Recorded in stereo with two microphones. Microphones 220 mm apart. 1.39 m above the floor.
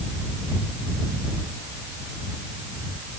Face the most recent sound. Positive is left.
No sound to turn to.